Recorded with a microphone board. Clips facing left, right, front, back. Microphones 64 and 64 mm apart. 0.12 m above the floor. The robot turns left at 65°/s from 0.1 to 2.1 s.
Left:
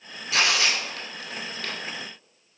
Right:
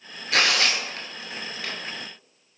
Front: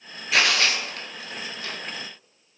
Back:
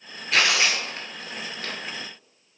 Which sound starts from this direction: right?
Tearing paper, at 0.3 s.